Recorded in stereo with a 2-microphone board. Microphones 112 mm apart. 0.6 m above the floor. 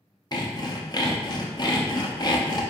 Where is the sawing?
40° left (ahead or behind), 0.6 m.